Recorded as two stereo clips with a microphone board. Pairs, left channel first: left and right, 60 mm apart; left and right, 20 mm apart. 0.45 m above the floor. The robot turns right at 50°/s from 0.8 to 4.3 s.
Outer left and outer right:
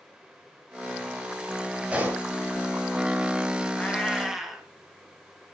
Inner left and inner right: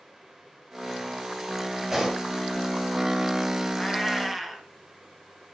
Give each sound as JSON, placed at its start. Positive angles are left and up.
{"t": 1.9, "sound": "a pop", "side_deg": -20, "distance_m": 2.0}
{"t": 3.7, "sound": "a cat meowing", "side_deg": 25, "distance_m": 1.7}